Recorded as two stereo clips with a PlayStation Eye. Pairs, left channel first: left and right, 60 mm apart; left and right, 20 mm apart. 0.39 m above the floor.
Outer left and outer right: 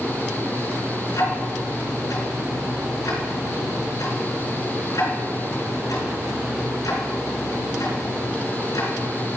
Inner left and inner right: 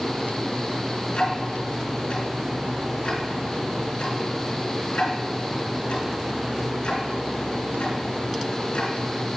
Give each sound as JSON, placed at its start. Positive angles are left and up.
{"t": 1.1, "sound": "ticking", "side_deg": 75, "distance_m": 3.0}